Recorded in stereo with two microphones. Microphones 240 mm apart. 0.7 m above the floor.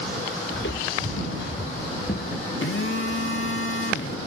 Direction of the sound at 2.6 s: 60° left (ahead or behind).